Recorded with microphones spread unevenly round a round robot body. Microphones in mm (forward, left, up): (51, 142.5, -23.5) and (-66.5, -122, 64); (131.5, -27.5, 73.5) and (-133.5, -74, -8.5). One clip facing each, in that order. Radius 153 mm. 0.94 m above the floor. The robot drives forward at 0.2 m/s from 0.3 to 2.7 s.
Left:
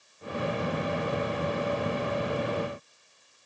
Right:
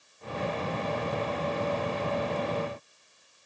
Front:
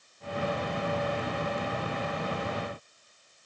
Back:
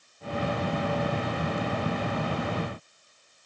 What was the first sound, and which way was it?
Only background noise.